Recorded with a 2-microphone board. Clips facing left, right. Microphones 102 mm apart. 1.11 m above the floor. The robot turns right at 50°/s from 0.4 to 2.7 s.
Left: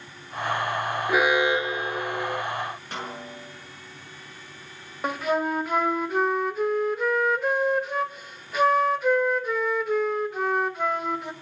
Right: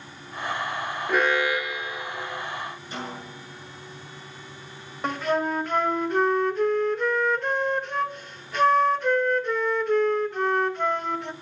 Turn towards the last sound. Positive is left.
turn(degrees=5)  # may be behind; listen again after turning